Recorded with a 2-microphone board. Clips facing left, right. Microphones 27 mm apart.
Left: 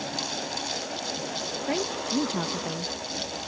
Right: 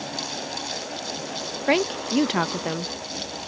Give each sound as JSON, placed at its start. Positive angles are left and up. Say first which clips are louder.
{"t": 1.7, "sound": "a woman speaking", "louder": "right 8 dB", "side_deg": -60}